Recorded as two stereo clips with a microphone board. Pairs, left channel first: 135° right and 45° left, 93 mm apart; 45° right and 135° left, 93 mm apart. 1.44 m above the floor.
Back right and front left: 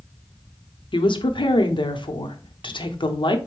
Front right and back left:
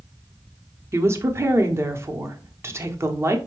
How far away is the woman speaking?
About 0.8 m.